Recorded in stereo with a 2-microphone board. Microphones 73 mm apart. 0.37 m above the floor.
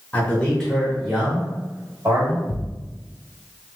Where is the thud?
80° left, 0.5 m.